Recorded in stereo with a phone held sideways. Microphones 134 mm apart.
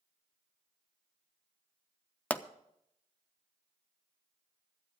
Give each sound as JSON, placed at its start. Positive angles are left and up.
{"t": 2.3, "sound": "a pop", "side_deg": 10, "distance_m": 0.5}